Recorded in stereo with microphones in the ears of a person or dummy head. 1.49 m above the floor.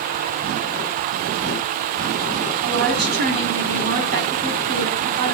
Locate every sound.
2.6 s a woman speaking: 50° right (ahead or behind), 4 m